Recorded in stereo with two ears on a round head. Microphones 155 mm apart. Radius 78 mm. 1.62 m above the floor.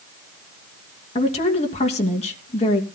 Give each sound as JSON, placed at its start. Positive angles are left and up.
{"t": 1.1, "sound": "a woman speaking", "side_deg": 40, "distance_m": 2.5}